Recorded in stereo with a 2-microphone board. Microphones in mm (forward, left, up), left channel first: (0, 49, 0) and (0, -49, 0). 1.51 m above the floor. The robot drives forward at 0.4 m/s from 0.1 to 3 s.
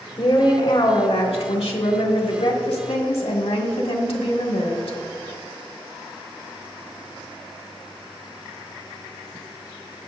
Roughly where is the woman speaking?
Left.